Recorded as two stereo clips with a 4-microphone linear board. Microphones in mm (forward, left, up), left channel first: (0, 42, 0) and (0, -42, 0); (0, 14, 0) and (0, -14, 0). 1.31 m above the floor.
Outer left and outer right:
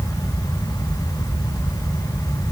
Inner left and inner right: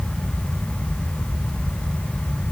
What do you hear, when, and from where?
Only background noise.